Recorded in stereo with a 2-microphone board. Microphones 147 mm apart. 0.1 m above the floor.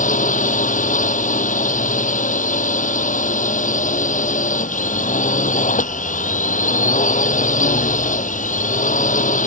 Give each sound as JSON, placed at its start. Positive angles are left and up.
{"t": 0.0, "sound": "a drone", "side_deg": 60}